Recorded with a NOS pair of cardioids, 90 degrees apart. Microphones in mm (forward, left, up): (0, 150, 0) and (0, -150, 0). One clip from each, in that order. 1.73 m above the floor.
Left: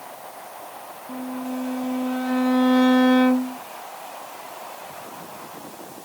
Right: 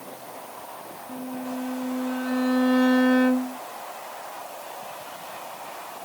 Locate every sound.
1.1 s a violin: 20° left